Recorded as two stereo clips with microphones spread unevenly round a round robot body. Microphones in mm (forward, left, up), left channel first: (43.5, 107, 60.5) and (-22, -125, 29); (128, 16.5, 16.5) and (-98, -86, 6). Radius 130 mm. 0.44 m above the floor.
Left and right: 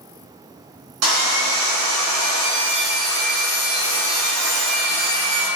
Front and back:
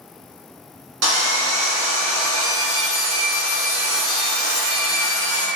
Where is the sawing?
135° right, 0.8 m.